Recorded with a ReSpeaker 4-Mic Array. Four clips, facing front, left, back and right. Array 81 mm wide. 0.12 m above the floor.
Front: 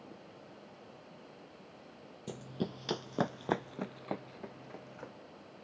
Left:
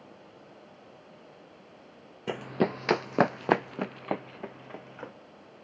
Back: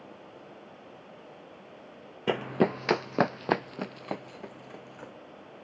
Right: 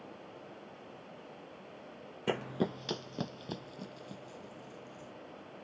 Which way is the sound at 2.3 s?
175° right.